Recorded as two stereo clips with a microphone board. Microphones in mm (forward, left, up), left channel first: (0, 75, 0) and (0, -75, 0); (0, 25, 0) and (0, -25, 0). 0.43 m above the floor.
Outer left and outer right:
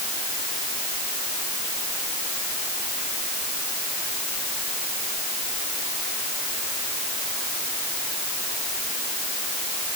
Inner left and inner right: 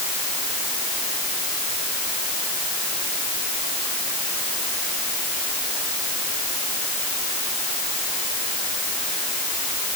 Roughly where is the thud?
I don't hear a thud.